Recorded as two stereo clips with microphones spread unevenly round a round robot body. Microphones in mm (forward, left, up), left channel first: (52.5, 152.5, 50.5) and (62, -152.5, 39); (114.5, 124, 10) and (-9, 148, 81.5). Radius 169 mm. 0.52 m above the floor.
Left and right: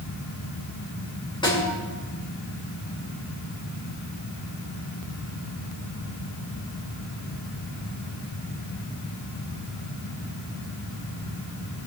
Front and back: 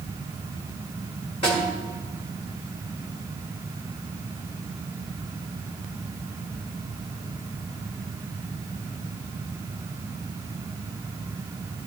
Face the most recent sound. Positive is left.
turn(degrees=15)